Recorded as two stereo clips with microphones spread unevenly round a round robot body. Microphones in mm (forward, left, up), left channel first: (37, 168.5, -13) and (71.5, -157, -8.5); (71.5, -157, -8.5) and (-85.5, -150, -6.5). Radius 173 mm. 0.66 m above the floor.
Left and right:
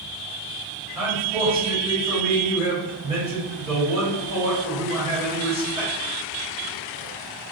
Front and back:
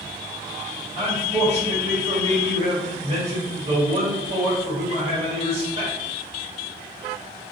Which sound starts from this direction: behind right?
A man speaking, at 0.9 s.